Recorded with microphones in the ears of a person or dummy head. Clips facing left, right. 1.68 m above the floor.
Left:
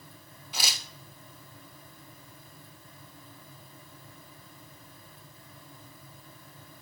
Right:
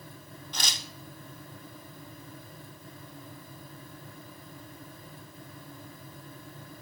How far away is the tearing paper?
About 0.8 m.